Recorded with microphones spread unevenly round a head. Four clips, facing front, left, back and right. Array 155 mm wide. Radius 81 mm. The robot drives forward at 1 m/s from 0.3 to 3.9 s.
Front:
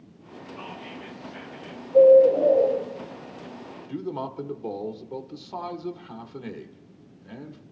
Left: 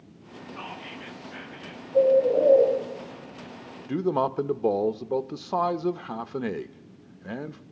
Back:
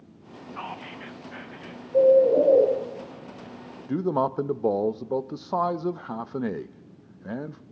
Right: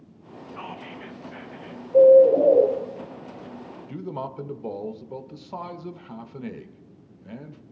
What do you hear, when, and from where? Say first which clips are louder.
0.5 s whispering: right 2 dB, back 3 dB; 175° left, 1.4 m; by 1.8 s straight behind, 2.5 m
1.9 s a bird: right 7 dB, front 3 dB; 100° right, 1.7 m; by 2.7 s 125° right, 2 m
3.9 s a man speaking: left 9 dB, back 8 dB; 135° left, 0.6 m